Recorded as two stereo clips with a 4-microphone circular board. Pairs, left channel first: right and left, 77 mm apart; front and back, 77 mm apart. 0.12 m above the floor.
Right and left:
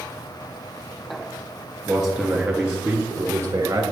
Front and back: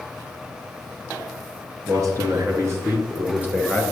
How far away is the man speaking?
About 2 m.